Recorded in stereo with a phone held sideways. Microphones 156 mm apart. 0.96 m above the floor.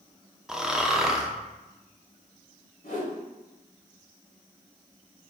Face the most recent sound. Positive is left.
turn(degrees=70)  # may be behind; listen again after turning